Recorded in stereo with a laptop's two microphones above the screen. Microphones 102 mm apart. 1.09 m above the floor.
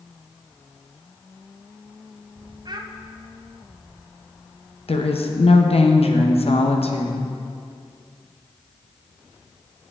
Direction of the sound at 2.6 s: 45° right (ahead or behind).